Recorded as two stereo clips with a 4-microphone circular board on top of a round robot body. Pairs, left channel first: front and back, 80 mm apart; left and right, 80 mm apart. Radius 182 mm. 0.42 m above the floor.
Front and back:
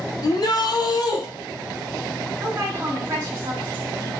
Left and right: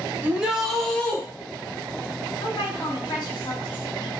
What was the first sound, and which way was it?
A shout, 25° right.